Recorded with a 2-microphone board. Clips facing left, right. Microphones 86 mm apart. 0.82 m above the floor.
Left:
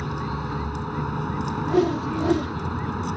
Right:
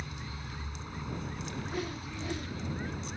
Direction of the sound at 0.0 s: 60° left (ahead or behind).